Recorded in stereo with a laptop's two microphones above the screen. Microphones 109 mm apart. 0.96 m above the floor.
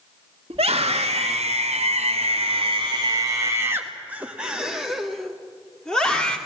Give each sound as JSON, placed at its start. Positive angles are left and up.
{"t": 0.5, "sound": "a scream", "side_deg": -60, "distance_m": 1.5}